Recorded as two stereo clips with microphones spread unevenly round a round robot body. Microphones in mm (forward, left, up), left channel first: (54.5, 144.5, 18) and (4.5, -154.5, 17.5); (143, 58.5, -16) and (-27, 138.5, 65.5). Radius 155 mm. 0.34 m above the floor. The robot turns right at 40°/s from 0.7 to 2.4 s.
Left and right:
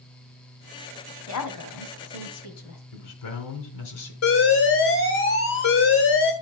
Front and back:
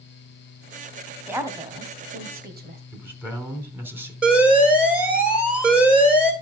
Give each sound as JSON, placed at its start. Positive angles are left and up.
{"t": 1.3, "sound": "a woman speaking", "azimuth_deg": 65, "distance_m": 2.0}
{"t": 2.9, "sound": "a man speaking", "azimuth_deg": 70, "distance_m": 3.0}
{"t": 4.2, "sound": "an alarm", "azimuth_deg": 55, "distance_m": 2.5}